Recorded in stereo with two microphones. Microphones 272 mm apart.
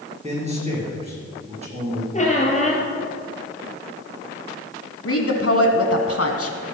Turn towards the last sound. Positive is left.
turn(degrees=55)  # may be behind; listen again after turning